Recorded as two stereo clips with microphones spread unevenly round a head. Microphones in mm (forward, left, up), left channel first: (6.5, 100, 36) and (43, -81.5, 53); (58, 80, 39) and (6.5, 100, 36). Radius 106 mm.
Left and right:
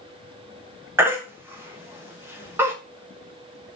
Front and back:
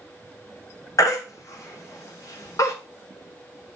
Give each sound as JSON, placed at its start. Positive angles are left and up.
{"t": 1.0, "sound": "a baby crying", "azimuth_deg": 0, "distance_m": 0.8}